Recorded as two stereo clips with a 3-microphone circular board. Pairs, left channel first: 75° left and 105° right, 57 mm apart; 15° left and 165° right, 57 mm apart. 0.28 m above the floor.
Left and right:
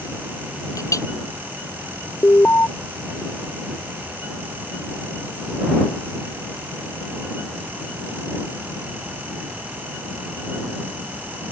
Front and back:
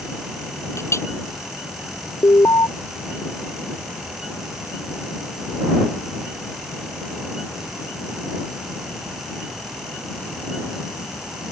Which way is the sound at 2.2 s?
25° left.